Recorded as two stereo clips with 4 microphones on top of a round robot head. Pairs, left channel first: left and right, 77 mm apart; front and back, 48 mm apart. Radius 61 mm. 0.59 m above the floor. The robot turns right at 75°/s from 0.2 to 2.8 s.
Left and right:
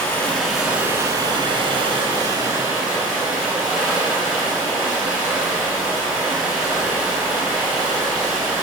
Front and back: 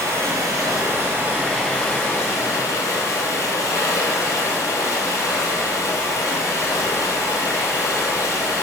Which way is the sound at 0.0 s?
155° left.